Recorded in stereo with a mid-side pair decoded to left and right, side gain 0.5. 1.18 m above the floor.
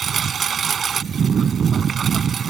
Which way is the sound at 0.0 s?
45° right.